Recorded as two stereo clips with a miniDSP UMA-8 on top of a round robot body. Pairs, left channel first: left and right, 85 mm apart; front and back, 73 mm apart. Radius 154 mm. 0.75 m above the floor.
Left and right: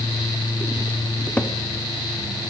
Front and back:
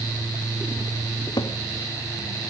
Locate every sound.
1.4 s a cupboard door: 15° left, 1.2 m